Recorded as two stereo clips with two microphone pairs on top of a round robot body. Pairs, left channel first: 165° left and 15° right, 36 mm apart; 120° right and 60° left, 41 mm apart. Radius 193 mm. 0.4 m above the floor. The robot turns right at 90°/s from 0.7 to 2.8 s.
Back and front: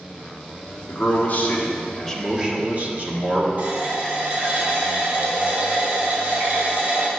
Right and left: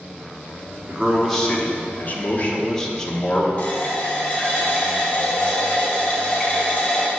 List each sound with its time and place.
0.9 s a man speaking: 130° left, 1.5 m; by 3.5 s 55° right, 1.5 m
3.6 s a running tap: 60° right, 1.9 m